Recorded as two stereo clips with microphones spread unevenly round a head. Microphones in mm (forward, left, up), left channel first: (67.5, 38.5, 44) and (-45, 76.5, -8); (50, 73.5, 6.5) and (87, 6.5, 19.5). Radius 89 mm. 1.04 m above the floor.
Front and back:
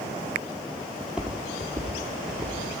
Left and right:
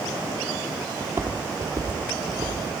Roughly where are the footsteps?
Ahead right.